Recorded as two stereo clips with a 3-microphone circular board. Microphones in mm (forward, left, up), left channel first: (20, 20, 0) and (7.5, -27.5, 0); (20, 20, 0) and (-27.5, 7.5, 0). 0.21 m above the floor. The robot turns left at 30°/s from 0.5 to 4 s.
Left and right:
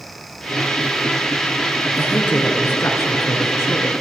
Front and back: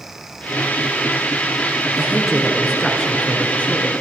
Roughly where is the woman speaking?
Behind left.